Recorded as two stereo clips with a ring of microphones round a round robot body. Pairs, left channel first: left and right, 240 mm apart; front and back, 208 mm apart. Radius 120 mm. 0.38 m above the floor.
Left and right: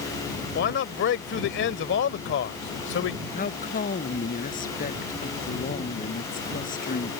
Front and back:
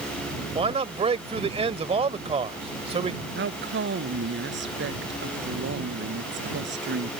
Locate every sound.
0.6 s a man speaking: 125° left
3.4 s a woman speaking: 150° left